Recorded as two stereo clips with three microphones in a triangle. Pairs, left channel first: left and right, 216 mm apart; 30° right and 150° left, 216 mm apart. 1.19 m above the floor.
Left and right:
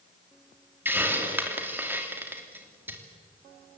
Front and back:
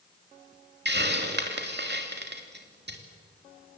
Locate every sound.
0.8 s a hiss: 170° right, 3 m